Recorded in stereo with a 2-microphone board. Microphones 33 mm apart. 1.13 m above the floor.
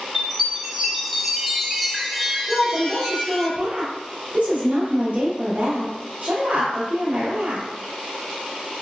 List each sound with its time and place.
0.1 s a chime: centre (ahead or behind), 0.7 m
2.5 s a woman speaking: 35° right (ahead or behind), 1.0 m